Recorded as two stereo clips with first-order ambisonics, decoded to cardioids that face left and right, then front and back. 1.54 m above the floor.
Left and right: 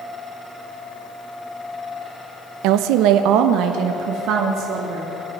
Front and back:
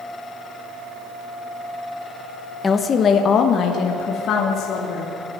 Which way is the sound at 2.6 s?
75° right.